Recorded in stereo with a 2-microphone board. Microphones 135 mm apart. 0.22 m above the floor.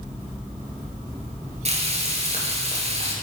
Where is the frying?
50° right (ahead or behind), 1.5 m.